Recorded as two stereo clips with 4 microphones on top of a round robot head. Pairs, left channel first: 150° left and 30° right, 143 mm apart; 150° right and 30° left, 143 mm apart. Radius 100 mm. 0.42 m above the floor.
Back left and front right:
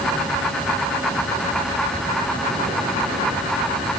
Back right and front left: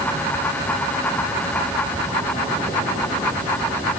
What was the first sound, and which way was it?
Only background noise.